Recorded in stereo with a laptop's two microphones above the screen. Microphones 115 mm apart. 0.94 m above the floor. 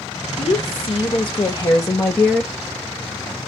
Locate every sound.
0.4 s a woman speaking: 55° left (ahead or behind), 1.7 m; by 2.5 s centre (ahead or behind), 0.9 m